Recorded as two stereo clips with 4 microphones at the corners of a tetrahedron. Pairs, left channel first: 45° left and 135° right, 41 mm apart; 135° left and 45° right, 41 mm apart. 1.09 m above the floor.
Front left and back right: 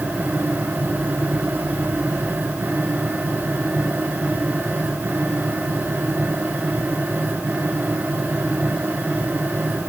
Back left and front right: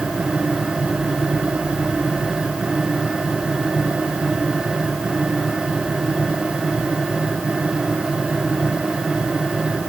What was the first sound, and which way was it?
Only background noise.